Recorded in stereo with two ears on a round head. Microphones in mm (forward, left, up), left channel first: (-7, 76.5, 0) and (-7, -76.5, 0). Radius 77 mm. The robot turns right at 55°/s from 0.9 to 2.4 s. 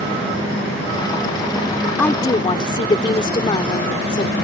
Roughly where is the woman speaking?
Centre.